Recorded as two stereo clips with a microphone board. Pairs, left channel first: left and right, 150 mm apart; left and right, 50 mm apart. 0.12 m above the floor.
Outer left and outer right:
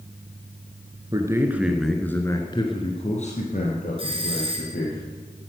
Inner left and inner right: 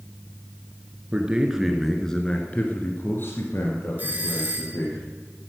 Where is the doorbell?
35° right (ahead or behind), 1.8 m.